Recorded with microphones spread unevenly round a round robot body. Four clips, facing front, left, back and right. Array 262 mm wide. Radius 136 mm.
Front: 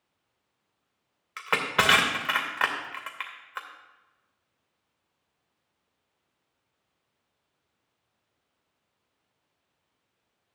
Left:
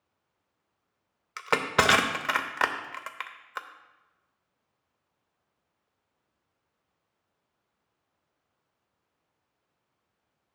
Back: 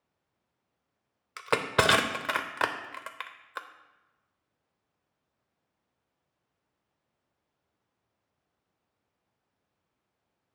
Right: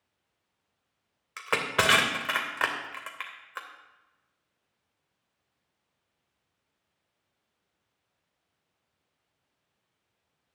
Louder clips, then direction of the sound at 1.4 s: Left 3 dB, even; 160° left.